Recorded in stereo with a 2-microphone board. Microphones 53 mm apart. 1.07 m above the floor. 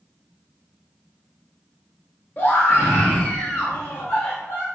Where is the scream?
40° left (ahead or behind), 0.6 m.